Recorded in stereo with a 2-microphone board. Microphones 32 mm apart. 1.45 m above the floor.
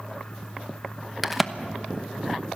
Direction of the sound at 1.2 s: 5° right (ahead or behind).